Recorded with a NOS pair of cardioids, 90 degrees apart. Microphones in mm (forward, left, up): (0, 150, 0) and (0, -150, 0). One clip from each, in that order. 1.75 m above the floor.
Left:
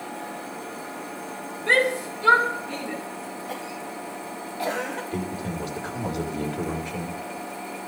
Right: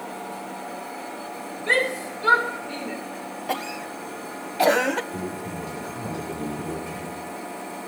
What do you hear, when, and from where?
1.7 s a shout: 10° left, 7 m
3.5 s a cough: 55° right, 1.2 m
5.1 s a man speaking: 55° left, 5.5 m